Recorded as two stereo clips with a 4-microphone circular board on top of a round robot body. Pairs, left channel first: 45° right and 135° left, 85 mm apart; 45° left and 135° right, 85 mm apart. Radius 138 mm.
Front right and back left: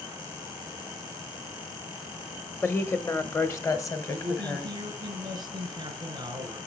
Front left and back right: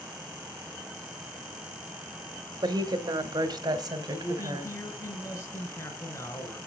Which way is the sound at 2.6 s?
105° right.